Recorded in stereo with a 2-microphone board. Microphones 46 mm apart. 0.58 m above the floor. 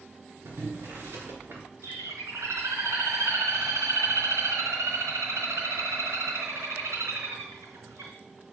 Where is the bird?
85° right, 3.5 m.